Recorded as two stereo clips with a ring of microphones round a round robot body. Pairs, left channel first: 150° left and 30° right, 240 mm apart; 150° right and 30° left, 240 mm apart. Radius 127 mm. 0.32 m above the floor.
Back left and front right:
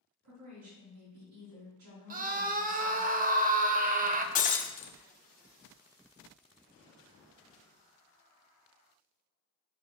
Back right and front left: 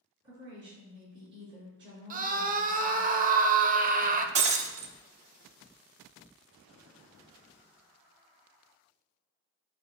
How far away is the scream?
About 1.0 m.